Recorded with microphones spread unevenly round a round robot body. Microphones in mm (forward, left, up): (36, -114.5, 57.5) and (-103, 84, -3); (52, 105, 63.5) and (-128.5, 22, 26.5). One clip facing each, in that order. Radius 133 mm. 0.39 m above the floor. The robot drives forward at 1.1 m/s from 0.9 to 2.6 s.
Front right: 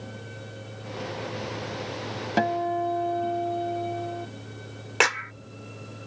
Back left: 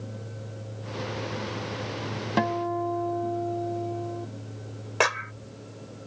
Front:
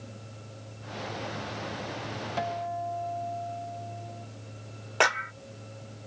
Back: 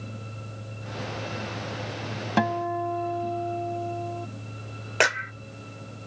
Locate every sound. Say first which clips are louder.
2.4 s a guitar: front right 1 dB, back 8 dB; 150° right; by 4.3 s 155° right
5.0 s a clap: even, back 2 dB; 105° right